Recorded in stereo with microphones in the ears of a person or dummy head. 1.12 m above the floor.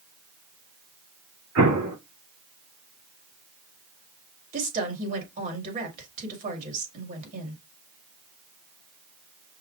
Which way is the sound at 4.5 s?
45° right (ahead or behind).